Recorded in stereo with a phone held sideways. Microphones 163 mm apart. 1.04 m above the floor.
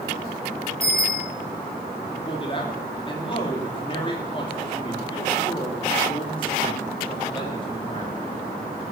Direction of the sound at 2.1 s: 30° left (ahead or behind).